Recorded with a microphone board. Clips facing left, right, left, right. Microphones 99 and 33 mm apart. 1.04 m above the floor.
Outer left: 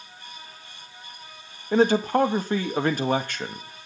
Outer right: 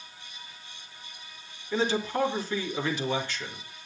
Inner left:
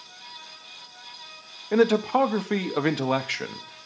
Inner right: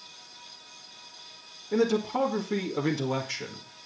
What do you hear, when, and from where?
1.7 s a man speaking: 55° left (ahead or behind), 1.8 m